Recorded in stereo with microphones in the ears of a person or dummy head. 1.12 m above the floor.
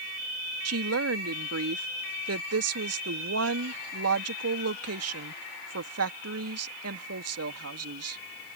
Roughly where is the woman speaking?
Right.